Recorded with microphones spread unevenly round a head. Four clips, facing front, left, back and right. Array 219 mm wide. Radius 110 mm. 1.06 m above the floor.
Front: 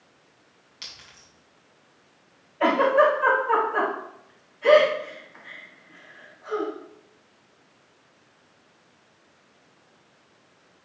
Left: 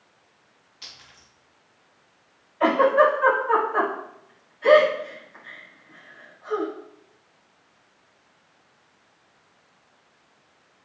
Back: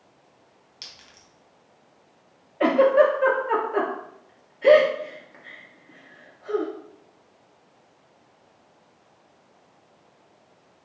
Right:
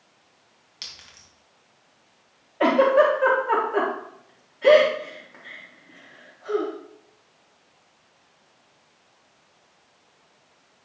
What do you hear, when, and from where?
0.8 s a clink: 90° right, 3.5 m
2.6 s a giggle: 140° right, 1.7 m